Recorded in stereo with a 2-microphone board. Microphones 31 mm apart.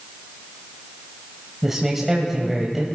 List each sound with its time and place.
1.6 s a man speaking: 10° right (ahead or behind), 1.5 m